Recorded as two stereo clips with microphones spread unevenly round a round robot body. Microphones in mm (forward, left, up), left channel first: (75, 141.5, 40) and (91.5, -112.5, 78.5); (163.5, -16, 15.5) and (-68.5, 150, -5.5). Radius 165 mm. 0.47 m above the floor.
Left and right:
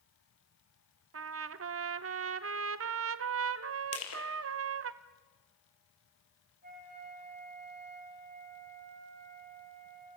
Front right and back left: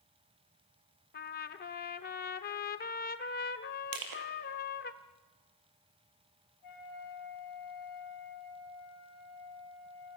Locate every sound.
1.1 s a trumpet: 90° right, 0.9 m
3.9 s crushing: 135° left, 4.5 m
6.6 s a flute: 35° right, 9 m